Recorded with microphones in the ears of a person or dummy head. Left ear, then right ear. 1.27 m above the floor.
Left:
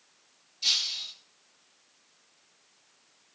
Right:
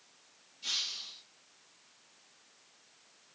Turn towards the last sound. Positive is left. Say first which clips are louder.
# left 8 dB
turn(degrees=50)  # may be behind; listen again after turning